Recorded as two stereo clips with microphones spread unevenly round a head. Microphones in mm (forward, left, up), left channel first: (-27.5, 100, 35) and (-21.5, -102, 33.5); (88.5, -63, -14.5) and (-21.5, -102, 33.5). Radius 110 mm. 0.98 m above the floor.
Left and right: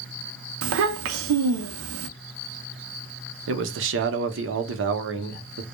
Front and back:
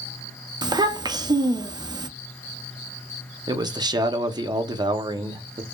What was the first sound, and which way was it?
A child speaking, 95° right.